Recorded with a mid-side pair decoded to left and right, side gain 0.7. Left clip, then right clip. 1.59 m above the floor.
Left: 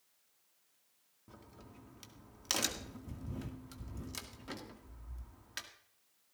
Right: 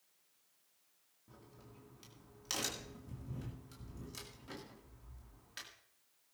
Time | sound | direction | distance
1.3 | a crack | 30° left | 2.0 m